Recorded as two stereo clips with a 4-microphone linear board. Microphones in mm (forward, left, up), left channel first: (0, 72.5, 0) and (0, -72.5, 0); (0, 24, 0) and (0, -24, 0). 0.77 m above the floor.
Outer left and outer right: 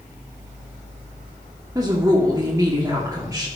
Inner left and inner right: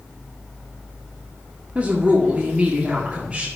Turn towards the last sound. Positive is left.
turn(degrees=-20)  # may be behind; listen again after turning